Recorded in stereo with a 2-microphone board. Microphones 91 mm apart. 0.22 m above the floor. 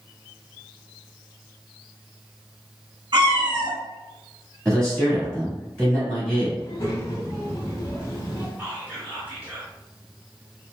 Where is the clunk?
No clunk in this recording.